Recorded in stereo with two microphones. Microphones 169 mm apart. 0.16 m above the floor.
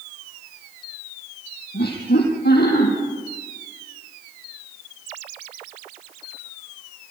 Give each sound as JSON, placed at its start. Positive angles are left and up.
{"t": 1.7, "sound": "laughter", "side_deg": 75, "distance_m": 6.0}